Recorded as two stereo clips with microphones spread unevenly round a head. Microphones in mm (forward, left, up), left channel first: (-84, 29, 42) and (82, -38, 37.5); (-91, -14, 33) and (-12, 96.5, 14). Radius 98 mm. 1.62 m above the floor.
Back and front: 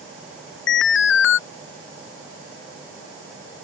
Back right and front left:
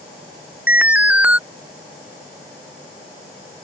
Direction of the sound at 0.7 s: 135° left.